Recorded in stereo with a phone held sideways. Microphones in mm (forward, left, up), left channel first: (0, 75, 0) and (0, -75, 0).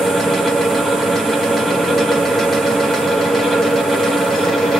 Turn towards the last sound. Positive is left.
turn(degrees=0)  # may be behind; listen again after turning